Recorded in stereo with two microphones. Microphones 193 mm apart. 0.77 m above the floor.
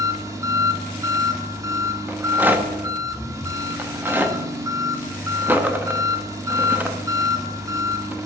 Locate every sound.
0.0 s an engine running: 20° right (ahead or behind), 1.1 m
2.1 s a rattle: 10° right (ahead or behind), 0.8 m